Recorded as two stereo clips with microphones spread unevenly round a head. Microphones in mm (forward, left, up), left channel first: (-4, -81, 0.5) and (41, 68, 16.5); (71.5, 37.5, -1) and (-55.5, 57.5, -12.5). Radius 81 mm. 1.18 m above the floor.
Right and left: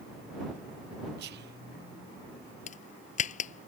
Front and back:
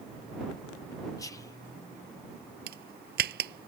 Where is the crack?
155° right.